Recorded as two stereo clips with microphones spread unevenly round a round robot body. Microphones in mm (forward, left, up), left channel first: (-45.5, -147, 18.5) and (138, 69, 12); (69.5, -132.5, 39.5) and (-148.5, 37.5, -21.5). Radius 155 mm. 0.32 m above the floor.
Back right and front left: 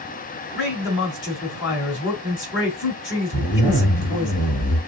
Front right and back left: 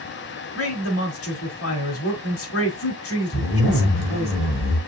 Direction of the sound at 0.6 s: 85° right.